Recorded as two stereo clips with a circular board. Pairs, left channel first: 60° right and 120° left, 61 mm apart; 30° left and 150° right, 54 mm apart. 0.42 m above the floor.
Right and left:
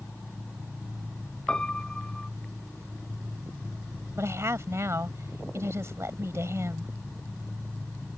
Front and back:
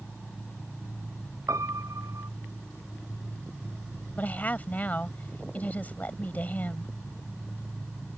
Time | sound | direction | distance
1.5 | a piano | 140° right | ?
4.2 | a woman speaking | 85° left | ?